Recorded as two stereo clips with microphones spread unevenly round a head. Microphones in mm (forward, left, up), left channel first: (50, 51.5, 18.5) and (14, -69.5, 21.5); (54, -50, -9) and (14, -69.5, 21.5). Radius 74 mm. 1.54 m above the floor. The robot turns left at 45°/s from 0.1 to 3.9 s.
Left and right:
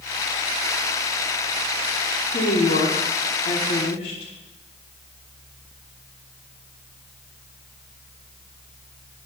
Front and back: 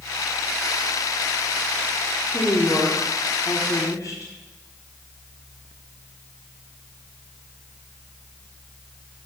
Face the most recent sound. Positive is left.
turn(degrees=40)